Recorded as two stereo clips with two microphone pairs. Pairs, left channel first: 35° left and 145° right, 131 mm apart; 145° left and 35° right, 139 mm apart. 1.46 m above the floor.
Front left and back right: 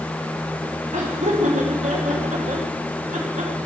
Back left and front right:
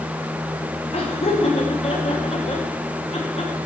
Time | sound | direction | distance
0.9 | laughter | 170° right | 2.5 m